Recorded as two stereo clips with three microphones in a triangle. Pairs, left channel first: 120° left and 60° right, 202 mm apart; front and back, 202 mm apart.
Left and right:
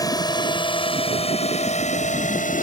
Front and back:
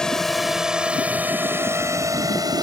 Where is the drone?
80° left; by 2.6 s 120° left.